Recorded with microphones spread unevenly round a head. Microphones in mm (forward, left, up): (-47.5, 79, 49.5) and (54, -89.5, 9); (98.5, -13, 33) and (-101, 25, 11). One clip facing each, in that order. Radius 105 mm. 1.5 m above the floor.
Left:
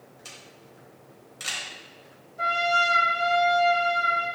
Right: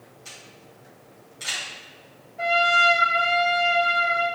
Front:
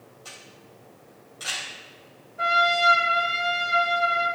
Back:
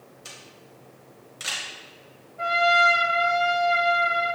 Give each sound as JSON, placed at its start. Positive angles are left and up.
{"t": 0.2, "sound": "a camera shutter", "azimuth_deg": 105, "distance_m": 3.5}
{"t": 2.4, "sound": "a trumpet", "azimuth_deg": 50, "distance_m": 2.0}